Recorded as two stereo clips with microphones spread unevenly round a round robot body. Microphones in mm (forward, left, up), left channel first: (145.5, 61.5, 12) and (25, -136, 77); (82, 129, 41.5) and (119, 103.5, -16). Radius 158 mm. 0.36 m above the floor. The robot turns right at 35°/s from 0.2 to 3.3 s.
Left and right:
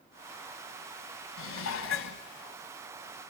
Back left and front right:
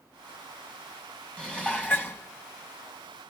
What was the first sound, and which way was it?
Dishes clattering, 60° left.